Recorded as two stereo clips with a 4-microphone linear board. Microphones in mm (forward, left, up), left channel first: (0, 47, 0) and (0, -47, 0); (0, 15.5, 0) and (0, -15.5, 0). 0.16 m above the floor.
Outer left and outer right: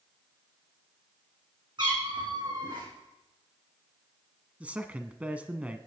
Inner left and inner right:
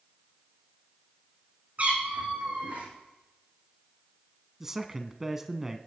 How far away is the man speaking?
About 1.1 m.